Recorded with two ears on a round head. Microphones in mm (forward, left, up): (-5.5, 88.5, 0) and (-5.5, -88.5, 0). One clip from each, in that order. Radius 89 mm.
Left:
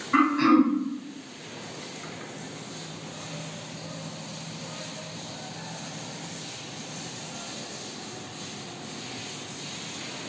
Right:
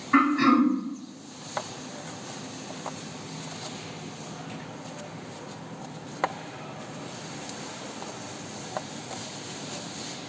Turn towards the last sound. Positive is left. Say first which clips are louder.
# even
turn(degrees=-20)  # may be behind; listen again after turning